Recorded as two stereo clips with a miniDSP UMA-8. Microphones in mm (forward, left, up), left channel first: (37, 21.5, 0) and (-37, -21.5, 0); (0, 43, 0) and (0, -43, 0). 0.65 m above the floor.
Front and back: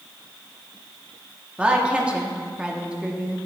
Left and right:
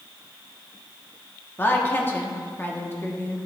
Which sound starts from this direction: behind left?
A woman speaking, at 1.6 s.